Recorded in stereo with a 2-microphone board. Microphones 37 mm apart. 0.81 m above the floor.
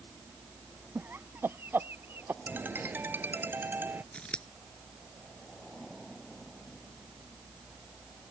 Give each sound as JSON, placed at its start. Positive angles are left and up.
{"t": 0.9, "sound": "laughter", "side_deg": -75}
{"t": 2.5, "sound": "a ringtone", "side_deg": -70}
{"t": 4.1, "sound": "scissors", "side_deg": 25}